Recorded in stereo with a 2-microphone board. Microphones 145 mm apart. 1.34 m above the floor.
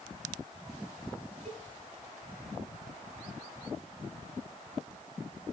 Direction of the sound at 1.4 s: 45° right (ahead or behind).